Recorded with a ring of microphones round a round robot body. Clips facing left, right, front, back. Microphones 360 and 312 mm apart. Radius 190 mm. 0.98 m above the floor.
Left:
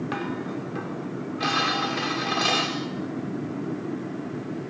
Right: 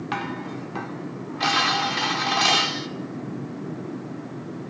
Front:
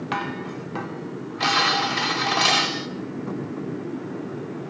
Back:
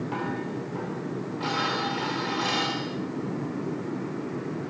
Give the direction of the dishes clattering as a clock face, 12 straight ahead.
1 o'clock.